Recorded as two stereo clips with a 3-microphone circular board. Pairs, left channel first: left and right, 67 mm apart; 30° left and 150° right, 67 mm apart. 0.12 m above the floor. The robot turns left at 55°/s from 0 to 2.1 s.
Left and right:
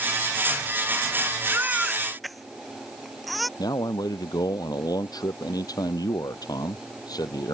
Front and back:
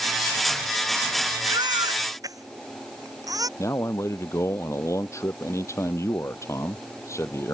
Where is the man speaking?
75° left.